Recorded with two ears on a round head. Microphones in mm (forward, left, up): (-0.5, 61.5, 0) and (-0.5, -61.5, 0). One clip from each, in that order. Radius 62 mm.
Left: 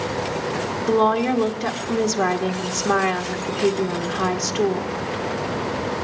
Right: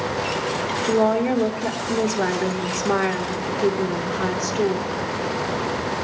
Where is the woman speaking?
35° left (ahead or behind), 1.1 m.